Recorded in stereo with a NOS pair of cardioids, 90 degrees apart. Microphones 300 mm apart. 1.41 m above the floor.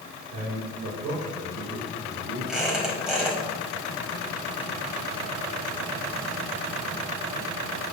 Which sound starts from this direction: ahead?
A squeak, at 2.5 s.